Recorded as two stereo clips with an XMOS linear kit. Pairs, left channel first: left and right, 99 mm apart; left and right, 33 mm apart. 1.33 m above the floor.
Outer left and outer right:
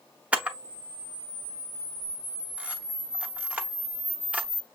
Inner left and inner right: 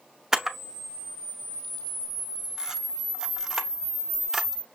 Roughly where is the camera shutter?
Centre.